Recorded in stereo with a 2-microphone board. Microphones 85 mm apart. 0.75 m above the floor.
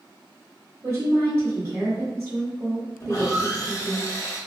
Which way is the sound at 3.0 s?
35° left (ahead or behind).